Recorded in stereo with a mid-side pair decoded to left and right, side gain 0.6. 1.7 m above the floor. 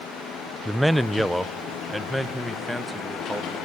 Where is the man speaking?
10° right, 0.8 m; by 3.6 s straight ahead, 3 m.